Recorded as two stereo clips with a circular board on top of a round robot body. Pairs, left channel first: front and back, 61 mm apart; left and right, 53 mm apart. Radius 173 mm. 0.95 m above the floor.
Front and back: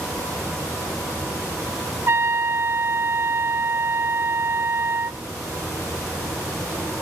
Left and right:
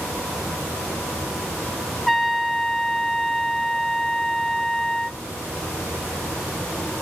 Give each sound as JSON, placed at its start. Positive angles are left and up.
{"t": 2.1, "sound": "a trumpet", "azimuth_deg": 180, "distance_m": 0.7}